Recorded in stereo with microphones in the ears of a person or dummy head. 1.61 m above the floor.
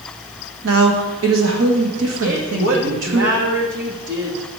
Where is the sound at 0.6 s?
70° right (ahead or behind), 1.8 m.